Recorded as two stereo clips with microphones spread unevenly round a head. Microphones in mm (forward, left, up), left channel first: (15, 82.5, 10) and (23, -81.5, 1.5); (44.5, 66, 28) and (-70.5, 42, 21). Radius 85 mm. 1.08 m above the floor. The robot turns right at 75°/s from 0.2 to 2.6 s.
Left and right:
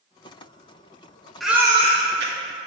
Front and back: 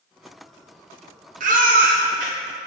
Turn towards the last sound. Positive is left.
turn(degrees=-90)